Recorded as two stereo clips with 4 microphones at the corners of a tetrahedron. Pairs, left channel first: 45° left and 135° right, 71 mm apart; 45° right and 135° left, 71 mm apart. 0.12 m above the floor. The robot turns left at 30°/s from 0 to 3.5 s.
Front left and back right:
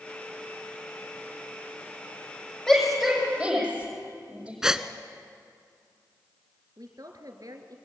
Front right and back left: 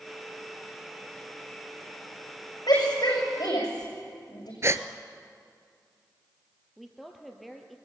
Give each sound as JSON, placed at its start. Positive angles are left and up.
{"t": 2.7, "sound": "a shout", "azimuth_deg": -30, "distance_m": 6.5}
{"t": 4.6, "sound": "a gasp", "azimuth_deg": 150, "distance_m": 0.8}
{"t": 6.8, "sound": "a woman speaking", "azimuth_deg": -135, "distance_m": 2.0}